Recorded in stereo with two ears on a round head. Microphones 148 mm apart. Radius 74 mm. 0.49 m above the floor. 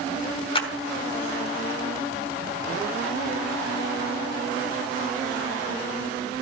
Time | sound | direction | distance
0.6 | a clap | 35° left (ahead or behind) | 2.5 m